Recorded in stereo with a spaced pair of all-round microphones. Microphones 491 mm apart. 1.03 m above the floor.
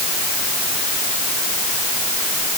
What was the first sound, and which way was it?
Only background noise.